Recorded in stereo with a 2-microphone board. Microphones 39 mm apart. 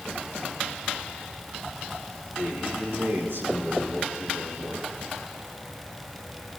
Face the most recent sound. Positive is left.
turn(degrees=-85)